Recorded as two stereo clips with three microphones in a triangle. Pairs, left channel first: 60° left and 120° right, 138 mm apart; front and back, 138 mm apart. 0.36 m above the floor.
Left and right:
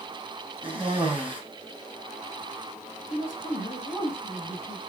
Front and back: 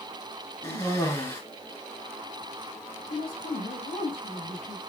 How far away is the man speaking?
About 7 m.